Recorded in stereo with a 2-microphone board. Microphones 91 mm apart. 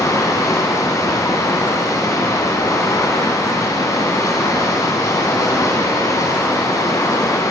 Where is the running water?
35° left (ahead or behind), 1.7 m.